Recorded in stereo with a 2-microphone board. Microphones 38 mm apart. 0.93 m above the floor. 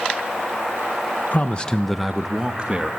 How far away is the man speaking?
About 0.7 m.